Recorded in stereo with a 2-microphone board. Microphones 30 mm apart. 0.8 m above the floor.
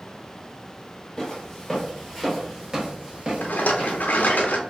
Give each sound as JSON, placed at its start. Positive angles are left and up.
{"t": 1.2, "sound": "footsteps", "side_deg": 15, "distance_m": 1.2}
{"t": 3.4, "sound": "a rattle", "side_deg": 80, "distance_m": 0.5}